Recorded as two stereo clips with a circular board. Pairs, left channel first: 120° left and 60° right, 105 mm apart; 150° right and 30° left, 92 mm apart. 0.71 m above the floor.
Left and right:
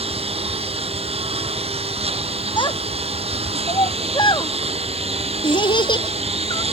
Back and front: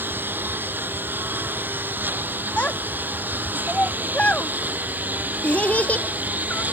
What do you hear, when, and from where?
0.0 s a lawn mower: 40° right
2.6 s a child speaking: 140° left